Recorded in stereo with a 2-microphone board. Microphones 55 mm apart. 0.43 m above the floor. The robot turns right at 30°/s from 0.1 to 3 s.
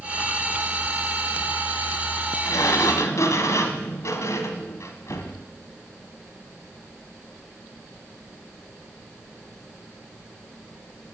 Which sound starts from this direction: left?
A sliding door, at 2.5 s.